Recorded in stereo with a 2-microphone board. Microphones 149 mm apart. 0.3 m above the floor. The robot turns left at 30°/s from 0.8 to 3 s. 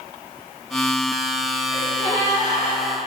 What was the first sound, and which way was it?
A gasp, 145° left.